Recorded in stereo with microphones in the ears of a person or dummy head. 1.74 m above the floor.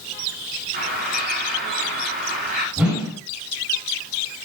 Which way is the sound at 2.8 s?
5° right (ahead or behind).